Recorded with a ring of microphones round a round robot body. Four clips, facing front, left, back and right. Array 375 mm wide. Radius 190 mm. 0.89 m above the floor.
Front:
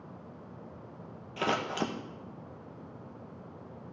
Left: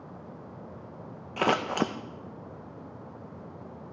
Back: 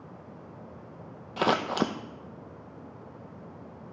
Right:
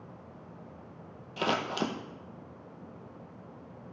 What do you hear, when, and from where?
1.4 s scissors: 140° left, 0.7 m